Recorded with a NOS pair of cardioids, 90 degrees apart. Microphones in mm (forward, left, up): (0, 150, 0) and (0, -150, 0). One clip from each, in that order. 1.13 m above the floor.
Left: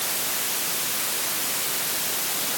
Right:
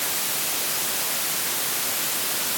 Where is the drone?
No drone in this recording.